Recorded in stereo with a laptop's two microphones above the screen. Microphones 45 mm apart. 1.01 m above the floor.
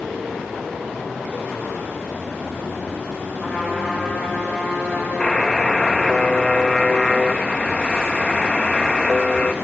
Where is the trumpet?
15° left (ahead or behind), 4.5 m.